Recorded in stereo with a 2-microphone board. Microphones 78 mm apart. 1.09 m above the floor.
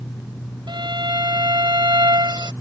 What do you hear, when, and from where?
0.7 s a violin: 75° right (ahead or behind)